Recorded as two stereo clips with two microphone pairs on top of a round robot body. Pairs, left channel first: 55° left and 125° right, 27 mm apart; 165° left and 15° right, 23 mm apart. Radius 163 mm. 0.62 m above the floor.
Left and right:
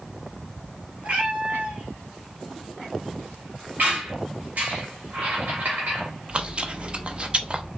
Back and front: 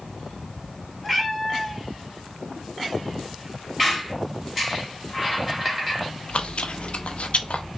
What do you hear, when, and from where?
1.0 s a cat meowing: 110° right, 1.6 m
3.8 s a squeak: 110° right, 1.9 m
6.3 s chewing: 170° right, 0.7 m